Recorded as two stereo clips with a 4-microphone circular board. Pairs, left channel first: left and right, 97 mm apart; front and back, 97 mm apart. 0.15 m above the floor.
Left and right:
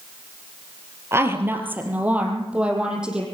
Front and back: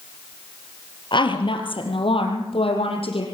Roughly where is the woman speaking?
Ahead right.